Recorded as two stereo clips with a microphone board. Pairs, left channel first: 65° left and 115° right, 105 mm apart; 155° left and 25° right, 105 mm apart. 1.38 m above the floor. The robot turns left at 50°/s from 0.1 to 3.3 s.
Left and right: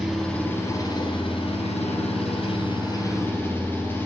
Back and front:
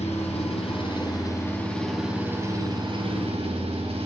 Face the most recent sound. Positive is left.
turn(degrees=0)